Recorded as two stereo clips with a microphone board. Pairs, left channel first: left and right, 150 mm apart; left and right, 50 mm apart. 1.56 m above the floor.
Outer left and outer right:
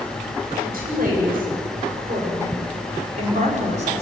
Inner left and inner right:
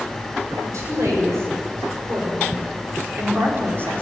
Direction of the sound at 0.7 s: 80° right.